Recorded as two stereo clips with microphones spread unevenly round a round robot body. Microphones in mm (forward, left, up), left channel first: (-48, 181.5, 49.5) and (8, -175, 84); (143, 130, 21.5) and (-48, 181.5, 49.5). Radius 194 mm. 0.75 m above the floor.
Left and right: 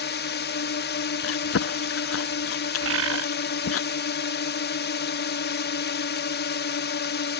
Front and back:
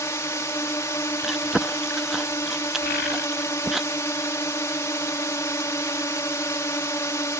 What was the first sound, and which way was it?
A drone, 50° left.